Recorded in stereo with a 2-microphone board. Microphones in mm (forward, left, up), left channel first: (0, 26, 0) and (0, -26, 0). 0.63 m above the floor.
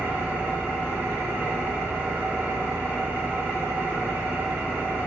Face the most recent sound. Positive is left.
turn(degrees=-40)  # may be behind; listen again after turning